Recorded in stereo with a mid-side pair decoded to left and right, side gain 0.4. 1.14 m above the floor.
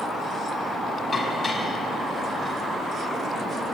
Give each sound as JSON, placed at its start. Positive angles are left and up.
{"t": 1.1, "sound": "dishes clattering", "azimuth_deg": 35, "distance_m": 5.5}